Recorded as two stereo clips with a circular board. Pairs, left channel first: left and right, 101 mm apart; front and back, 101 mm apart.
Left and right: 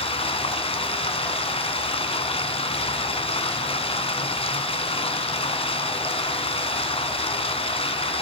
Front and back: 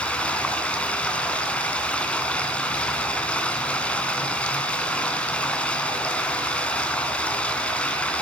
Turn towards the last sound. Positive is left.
turn(degrees=80)